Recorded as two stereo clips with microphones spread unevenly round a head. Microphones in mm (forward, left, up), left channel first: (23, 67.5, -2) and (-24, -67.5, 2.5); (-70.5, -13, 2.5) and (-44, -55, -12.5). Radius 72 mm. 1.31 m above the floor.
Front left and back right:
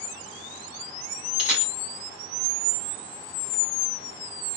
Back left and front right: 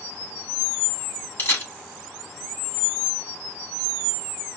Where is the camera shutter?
165° left, 3 m.